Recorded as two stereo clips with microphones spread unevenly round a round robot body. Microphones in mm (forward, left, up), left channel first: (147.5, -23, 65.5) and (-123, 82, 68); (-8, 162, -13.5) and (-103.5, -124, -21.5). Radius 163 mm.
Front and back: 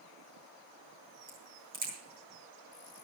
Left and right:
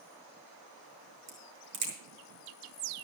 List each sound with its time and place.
1.3 s a crack: 125° right, 6.5 m